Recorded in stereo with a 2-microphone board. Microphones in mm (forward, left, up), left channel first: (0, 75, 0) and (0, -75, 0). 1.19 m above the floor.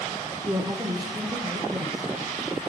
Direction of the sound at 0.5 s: 30° right (ahead or behind).